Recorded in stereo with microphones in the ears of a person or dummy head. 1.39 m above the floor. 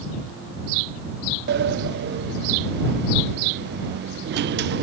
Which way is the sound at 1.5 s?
50° right (ahead or behind).